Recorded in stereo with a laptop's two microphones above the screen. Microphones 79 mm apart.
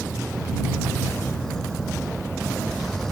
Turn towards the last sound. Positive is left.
turn(degrees=5)  # may be behind; listen again after turning